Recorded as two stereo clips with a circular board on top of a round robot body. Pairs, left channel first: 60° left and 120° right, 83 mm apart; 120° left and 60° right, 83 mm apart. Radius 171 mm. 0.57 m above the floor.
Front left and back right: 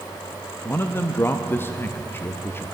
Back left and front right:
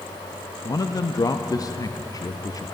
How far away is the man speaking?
About 0.8 m.